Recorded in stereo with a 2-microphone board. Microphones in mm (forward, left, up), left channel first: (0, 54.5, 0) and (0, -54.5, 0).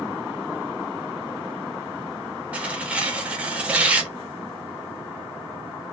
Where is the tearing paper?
10° right (ahead or behind), 0.6 m.